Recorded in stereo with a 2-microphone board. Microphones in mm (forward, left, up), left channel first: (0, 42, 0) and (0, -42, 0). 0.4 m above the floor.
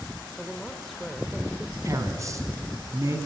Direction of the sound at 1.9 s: 40° right (ahead or behind).